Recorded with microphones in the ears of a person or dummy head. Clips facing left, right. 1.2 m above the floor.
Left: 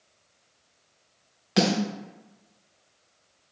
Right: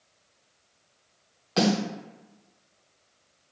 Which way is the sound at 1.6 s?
25° left (ahead or behind).